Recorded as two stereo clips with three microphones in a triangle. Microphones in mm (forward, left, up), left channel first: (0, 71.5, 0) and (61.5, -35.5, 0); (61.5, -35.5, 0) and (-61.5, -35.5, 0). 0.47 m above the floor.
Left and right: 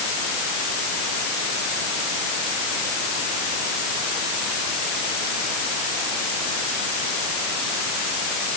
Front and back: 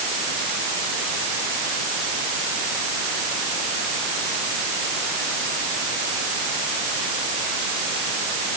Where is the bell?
No bell in this recording.